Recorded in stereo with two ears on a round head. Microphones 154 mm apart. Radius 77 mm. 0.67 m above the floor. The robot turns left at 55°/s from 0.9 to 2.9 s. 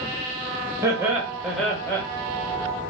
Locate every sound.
0.8 s laughter: 15° right (ahead or behind), 0.8 m; by 2.0 s 15° left (ahead or behind), 0.8 m